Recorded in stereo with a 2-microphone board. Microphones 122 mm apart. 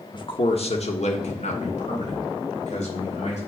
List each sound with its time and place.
0.1 s a man speaking: 40° left (ahead or behind), 1.3 m; by 3.4 s 70° left (ahead or behind), 4.5 m